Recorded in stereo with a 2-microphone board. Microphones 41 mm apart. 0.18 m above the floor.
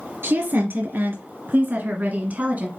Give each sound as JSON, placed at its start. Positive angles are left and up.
{"t": 0.2, "sound": "a woman speaking", "side_deg": -65, "distance_m": 3.0}